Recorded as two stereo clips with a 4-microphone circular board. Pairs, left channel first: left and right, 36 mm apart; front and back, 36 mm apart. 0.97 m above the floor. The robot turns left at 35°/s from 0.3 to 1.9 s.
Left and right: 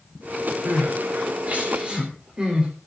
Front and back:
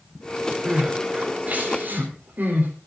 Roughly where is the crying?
Right.